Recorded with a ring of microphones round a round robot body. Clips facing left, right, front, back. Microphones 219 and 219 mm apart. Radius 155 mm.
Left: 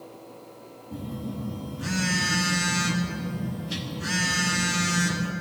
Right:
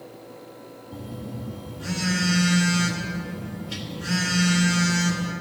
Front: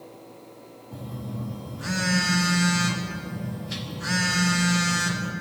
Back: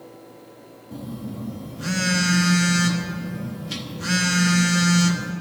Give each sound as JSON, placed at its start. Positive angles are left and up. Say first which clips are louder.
{"t": 0.9, "sound": "a phone buzzing", "louder": "left 2 dB, back 4 dB", "azimuth_deg": 130, "distance_m": 1.4}